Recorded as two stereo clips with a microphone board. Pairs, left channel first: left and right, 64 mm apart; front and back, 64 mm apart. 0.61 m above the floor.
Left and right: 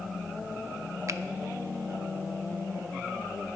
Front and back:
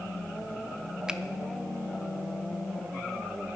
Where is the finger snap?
105° right, 0.5 m.